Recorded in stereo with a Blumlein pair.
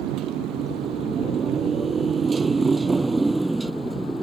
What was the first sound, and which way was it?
A motorcycle, 35° right.